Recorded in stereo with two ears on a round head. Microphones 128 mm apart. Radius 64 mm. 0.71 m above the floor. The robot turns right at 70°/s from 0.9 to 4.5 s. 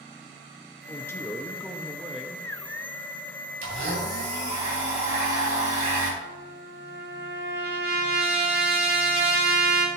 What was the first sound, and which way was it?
A man speaking, 20° left (ahead or behind).